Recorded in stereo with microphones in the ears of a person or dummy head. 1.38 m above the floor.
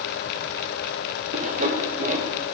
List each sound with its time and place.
1.3 s sawing: 40° right (ahead or behind), 0.8 m